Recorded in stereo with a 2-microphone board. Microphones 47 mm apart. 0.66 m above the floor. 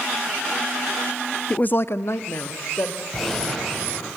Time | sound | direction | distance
1.5 | a woman speaking | 20° left (ahead or behind) | 0.6 m
3.1 | a gunshot | 5° left (ahead or behind) | 4.5 m